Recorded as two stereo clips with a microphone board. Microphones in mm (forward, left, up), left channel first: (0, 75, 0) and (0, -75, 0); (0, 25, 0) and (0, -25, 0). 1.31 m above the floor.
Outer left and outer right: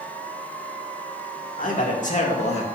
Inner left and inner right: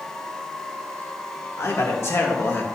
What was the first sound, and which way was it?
A man speaking, 65° left (ahead or behind).